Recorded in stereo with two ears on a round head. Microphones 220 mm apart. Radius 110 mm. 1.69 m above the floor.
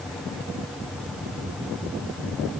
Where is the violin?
I don't hear a violin.